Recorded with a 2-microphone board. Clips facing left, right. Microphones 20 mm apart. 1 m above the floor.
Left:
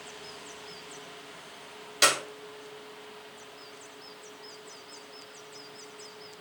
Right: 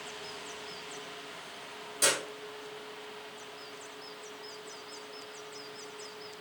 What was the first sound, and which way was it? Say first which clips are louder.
A clap: left 5 dB; 55° left (ahead or behind).